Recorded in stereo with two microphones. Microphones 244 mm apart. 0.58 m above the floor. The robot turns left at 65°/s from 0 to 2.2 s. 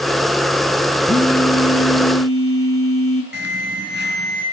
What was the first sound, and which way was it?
A phone buzzing, 150° left.